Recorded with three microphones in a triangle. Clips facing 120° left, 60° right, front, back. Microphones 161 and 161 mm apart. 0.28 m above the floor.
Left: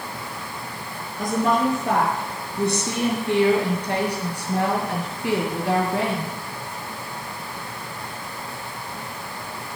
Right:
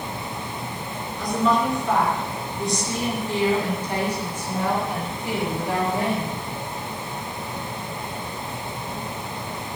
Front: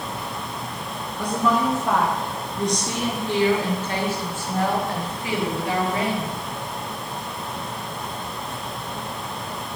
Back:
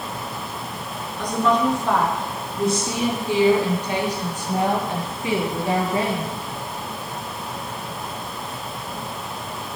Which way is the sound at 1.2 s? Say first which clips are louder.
Left 1 dB, back 2 dB; 80° left.